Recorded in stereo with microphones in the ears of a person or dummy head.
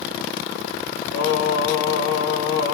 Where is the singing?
80° left, 3.5 m.